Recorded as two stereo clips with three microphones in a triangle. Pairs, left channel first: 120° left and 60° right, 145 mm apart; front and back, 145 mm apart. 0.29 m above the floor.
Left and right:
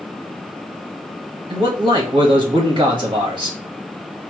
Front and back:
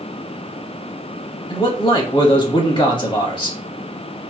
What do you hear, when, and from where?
1.5 s a man speaking: 30° right, 1.4 m